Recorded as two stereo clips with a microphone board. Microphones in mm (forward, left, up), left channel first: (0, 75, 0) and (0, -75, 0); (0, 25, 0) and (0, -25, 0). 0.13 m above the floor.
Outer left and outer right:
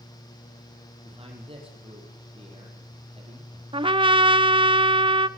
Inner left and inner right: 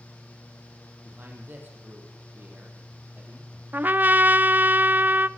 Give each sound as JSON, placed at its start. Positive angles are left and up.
{"t": 1.1, "sound": "a man speaking", "side_deg": -35, "distance_m": 4.5}
{"t": 3.7, "sound": "a trumpet", "side_deg": -35, "distance_m": 0.6}